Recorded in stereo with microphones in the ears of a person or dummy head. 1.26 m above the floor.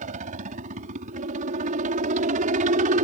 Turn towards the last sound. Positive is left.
turn(degrees=-40)  # may be behind; listen again after turning